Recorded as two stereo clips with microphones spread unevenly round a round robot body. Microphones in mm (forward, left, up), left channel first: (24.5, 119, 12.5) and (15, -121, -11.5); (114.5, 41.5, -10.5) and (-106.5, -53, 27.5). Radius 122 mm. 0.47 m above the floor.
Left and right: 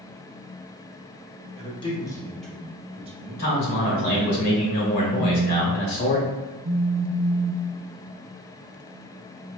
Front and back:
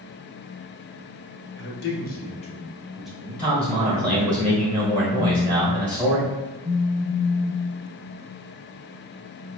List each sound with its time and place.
1.6 s a man speaking: 25° left, 1.1 m; by 4.3 s 100° right, 1.2 m
3.4 s a man speaking: 105° left, 2.0 m
5.2 s a phone buzzing: 70° right, 0.5 m